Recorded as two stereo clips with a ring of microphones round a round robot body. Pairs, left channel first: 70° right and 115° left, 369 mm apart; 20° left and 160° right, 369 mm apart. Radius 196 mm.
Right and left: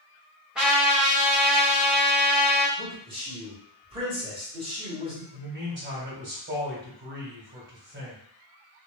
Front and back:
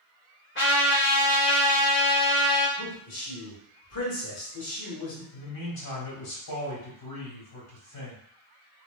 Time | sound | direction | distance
0.6 | a trumpet | 25° left | 1.4 m
2.8 | a man speaking | 40° left | 1.8 m
5.3 | a man speaking | 55° left | 2.0 m